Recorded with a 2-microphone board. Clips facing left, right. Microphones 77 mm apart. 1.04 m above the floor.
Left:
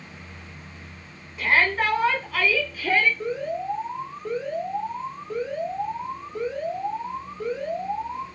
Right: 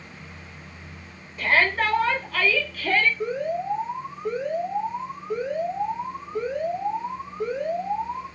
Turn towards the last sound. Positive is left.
turn(degrees=-15)  # may be behind; listen again after turning